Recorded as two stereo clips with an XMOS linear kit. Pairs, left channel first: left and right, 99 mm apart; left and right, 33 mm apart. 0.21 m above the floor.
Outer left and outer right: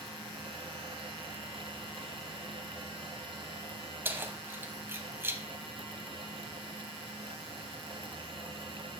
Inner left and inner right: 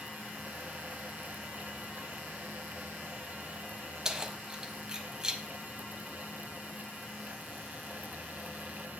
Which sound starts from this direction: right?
Keys jangling, at 4.0 s.